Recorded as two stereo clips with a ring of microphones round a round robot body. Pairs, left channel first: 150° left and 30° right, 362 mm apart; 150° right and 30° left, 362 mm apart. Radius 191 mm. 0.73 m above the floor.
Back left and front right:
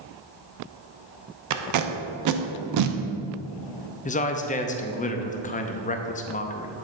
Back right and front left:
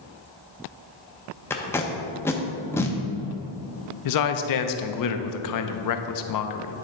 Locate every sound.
1.5 s tape being pulled: 65° right, 0.7 m
4.0 s a man speaking: 145° right, 0.7 m